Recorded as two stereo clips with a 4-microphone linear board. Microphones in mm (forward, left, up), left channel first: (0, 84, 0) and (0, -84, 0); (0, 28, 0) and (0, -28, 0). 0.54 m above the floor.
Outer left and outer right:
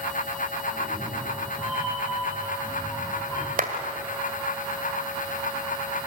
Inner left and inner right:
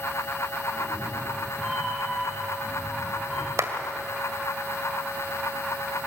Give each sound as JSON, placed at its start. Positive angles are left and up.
{"t": 0.7, "sound": "a cat meowing", "side_deg": 0, "distance_m": 8.5}
{"t": 3.6, "sound": "a clap", "side_deg": -60, "distance_m": 2.0}